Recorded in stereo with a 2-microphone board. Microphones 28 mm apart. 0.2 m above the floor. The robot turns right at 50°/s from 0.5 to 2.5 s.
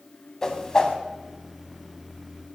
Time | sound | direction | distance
0.4 | a whoosh | 20° left (ahead or behind) | 1.6 m